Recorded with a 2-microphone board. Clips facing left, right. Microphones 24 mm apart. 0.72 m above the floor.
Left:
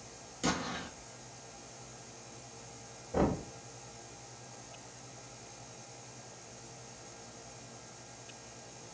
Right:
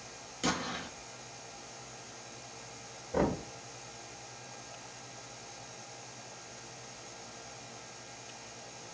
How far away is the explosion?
About 0.9 m.